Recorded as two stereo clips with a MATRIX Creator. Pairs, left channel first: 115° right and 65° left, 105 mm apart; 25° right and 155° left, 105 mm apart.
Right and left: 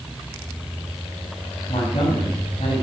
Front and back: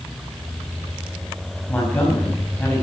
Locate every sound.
1.7 s a man speaking: 95° right, 4.5 m